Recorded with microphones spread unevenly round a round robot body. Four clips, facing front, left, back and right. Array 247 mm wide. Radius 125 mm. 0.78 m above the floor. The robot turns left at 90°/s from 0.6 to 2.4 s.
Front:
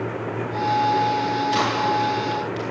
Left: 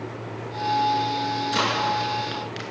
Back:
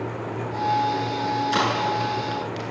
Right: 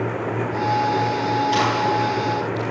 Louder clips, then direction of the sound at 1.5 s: Right 4 dB, front 2 dB; 170° right.